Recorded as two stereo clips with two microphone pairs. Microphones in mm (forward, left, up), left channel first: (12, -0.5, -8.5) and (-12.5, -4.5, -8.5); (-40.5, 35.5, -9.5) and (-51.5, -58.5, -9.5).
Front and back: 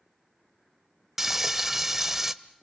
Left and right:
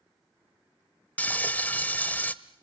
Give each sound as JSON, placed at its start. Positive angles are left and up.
{"t": 1.2, "sound": "frying", "azimuth_deg": 135, "distance_m": 0.8}